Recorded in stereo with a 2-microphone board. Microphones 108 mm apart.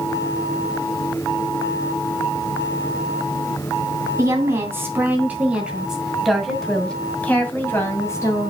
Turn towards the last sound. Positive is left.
turn(degrees=30)  # may be behind; listen again after turning